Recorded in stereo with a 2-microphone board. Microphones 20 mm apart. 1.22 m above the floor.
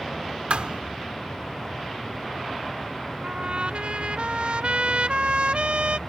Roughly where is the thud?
Right.